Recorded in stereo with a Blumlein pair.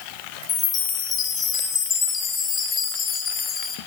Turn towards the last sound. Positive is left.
turn(degrees=20)